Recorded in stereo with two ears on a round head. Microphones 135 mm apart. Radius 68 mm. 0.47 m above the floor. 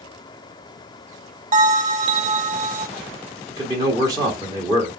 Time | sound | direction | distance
1.5 | a bell | 50° right (ahead or behind) | 0.7 m
3.5 | a man speaking | 25° right (ahead or behind) | 1.5 m